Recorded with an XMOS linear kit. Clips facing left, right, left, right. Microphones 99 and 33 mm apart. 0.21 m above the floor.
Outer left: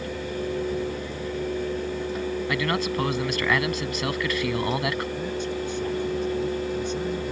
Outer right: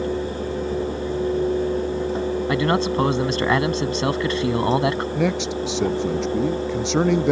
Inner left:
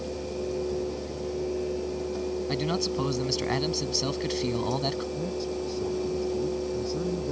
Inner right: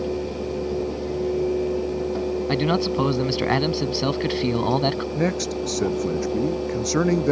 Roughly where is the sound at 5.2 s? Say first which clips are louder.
Outer right 6 dB, inner right 7 dB; right.